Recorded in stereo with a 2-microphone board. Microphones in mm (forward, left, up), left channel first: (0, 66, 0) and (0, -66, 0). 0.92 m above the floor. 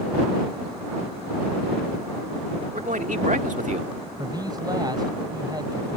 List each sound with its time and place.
2.7 s a man speaking: 80° right; by 3.9 s 65° right (ahead or behind)
4.2 s a man speaking: 30° right (ahead or behind)